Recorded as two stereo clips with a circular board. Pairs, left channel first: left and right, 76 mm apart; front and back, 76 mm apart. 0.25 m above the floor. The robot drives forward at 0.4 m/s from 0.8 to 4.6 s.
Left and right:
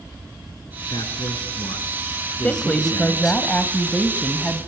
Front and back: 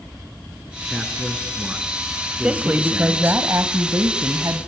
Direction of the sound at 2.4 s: 130° left.